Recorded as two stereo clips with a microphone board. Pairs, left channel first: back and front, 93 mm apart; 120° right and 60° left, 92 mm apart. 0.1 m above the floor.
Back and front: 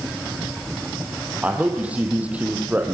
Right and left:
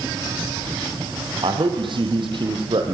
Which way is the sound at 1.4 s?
75° left.